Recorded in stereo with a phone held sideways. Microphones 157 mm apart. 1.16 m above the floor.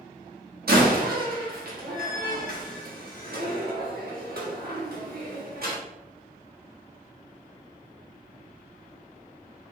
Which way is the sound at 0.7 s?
75° right (ahead or behind).